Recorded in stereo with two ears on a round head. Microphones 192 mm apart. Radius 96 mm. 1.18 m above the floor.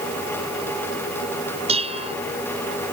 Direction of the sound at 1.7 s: 25° right (ahead or behind).